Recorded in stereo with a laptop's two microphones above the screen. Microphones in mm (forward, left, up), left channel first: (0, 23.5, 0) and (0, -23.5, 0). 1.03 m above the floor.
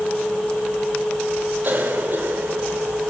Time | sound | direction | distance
1.6 | a cough | 45° right (ahead or behind) | 5 m